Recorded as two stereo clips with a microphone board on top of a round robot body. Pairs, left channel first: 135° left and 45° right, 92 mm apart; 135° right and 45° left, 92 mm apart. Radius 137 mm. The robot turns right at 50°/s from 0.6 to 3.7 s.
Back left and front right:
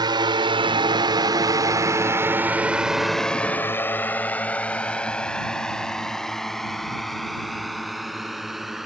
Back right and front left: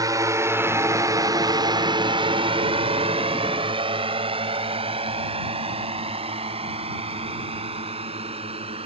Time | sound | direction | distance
0.0 | a drone | 5° right | ?